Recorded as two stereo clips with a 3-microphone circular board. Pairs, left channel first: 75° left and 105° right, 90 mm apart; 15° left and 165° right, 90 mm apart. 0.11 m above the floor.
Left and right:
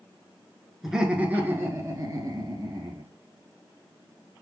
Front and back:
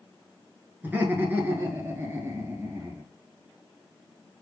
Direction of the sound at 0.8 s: 175° left.